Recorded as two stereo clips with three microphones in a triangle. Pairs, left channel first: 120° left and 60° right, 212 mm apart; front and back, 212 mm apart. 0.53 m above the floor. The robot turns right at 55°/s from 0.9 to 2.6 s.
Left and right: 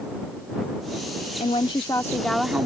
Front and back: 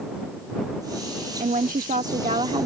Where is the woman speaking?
155° left; by 2.7 s 140° right.